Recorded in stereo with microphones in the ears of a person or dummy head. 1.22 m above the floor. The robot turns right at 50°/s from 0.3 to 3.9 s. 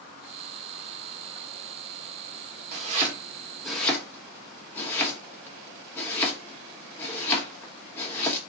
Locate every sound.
2.7 s chopping: 50° right (ahead or behind), 0.9 m; by 8.4 s 10° left (ahead or behind), 0.9 m